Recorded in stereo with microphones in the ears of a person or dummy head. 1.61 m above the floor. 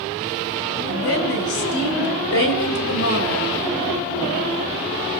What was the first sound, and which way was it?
A woman speaking, 70° left (ahead or behind).